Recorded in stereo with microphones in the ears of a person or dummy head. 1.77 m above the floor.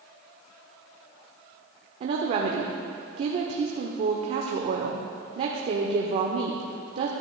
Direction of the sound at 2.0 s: 40° right (ahead or behind).